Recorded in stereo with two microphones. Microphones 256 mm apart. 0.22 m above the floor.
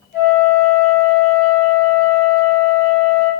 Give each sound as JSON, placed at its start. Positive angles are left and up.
{"t": 0.1, "sound": "a flute", "side_deg": 40, "distance_m": 1.2}